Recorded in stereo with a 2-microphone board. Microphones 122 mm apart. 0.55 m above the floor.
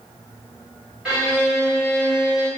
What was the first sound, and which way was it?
A violin, 5° right (ahead or behind).